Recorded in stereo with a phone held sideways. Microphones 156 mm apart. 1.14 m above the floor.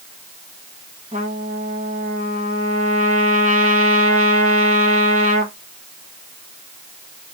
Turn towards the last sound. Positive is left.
turn(degrees=-55)  # may be behind; listen again after turning